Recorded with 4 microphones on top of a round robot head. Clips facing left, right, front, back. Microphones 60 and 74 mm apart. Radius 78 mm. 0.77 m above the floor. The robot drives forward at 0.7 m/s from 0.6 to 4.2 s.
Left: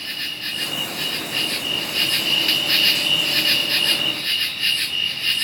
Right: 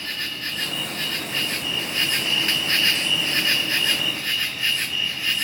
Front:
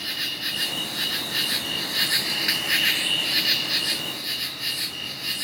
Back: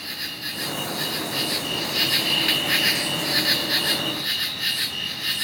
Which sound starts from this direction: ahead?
An insect, at 0.0 s.